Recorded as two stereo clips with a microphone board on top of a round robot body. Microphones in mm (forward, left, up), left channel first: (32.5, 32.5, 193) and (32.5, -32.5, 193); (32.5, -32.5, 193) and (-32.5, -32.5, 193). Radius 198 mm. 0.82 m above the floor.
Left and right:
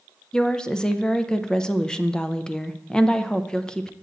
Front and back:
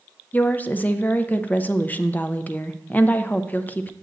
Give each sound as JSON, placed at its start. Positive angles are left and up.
{"t": 0.3, "sound": "a woman speaking", "azimuth_deg": 25, "distance_m": 0.7}